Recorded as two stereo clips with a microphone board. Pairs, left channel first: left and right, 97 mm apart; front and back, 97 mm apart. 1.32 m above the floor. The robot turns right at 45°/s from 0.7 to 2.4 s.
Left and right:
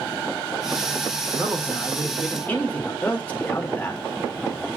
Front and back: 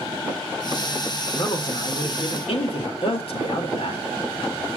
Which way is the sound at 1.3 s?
30° right.